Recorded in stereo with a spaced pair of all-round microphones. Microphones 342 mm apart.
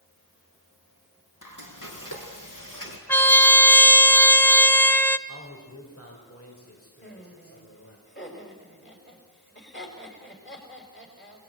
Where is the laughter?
35° left (ahead or behind), 6.5 m.